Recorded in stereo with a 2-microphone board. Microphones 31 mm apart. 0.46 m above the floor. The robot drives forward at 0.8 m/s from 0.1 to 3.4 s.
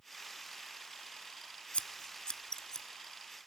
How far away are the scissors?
About 0.8 m.